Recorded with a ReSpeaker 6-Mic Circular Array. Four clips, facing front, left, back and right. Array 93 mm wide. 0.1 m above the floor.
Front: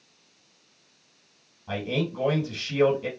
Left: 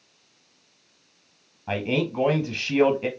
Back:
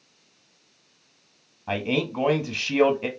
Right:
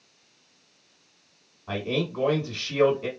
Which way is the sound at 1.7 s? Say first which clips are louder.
Left 3 dB, back 3 dB; 145° left.